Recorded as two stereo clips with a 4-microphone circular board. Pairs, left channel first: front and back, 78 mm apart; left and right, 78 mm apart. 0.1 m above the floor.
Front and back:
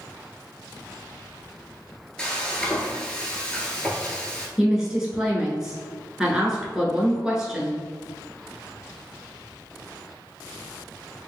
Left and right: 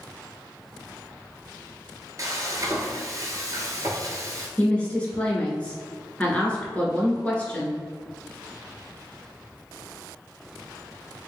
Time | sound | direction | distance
2.2 | frying | 75° right | 0.8 m
4.6 | a woman speaking | 115° left | 1.1 m